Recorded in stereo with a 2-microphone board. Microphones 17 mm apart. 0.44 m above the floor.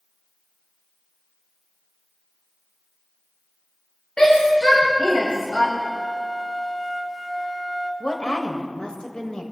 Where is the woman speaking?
50° left (ahead or behind), 1.9 m.